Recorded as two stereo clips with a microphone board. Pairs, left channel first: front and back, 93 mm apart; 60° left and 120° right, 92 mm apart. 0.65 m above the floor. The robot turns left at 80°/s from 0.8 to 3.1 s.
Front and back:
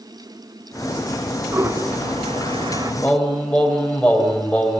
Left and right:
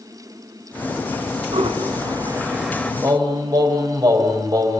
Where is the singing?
70° right, 3.5 m; by 4.8 s 75° right, 3.5 m.